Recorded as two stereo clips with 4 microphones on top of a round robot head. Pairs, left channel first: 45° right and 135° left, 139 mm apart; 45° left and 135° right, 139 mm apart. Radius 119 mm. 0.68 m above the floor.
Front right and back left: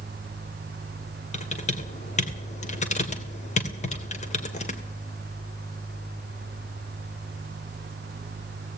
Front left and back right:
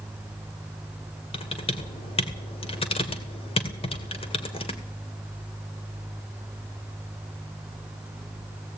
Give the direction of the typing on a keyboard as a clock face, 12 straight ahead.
12 o'clock.